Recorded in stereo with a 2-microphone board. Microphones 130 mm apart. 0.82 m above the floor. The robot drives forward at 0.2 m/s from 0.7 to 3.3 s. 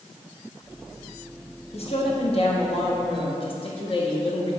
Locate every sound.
1.7 s a woman speaking: 50° left (ahead or behind), 1.2 m; by 4.6 s 45° left (ahead or behind), 1.3 m